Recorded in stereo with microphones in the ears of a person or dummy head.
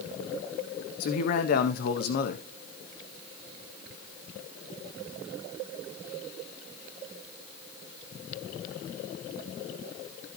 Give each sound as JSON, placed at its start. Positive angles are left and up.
{"t": 1.0, "sound": "a man speaking", "side_deg": 60, "distance_m": 1.8}